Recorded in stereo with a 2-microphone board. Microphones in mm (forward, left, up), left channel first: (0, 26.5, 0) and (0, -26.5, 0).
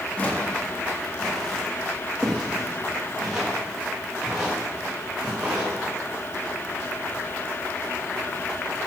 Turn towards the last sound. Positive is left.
turn(degrees=-20)  # may be behind; listen again after turning